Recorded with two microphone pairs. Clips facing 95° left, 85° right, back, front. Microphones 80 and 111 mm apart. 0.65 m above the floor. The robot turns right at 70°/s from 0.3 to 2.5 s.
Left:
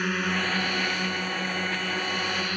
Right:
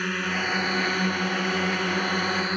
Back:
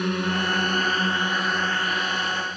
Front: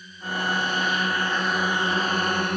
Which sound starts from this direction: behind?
A drone, at 0.0 s.